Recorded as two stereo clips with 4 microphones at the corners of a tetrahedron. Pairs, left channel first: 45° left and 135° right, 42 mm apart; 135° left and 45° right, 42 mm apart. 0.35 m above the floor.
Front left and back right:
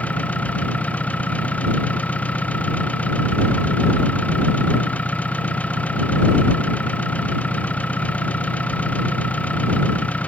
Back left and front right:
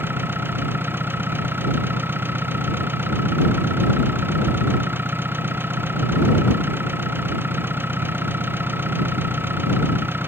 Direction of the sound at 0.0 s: 10° right.